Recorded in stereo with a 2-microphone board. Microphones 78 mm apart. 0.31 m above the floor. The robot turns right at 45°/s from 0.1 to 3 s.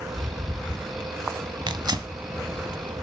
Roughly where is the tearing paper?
Right.